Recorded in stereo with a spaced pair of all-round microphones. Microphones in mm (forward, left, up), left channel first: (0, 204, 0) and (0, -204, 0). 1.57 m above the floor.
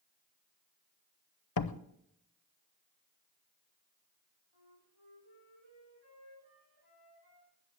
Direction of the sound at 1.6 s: 60° left (ahead or behind).